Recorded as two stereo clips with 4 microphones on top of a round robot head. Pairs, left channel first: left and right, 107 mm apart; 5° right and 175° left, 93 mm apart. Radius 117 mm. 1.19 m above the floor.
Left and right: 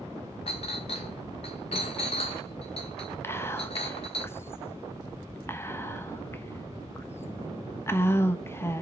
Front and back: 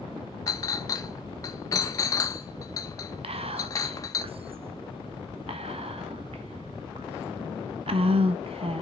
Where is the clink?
40° left, 0.5 m.